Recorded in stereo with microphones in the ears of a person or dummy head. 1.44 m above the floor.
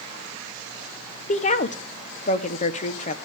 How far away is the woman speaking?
About 1.0 m.